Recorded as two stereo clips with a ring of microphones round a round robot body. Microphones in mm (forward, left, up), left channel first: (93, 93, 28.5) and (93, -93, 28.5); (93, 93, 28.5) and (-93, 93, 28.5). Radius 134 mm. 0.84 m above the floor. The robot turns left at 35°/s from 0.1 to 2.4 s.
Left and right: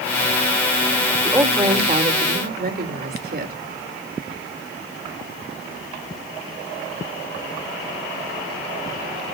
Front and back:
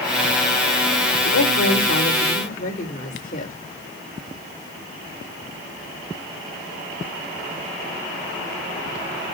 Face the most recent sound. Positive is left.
turn(degrees=-55)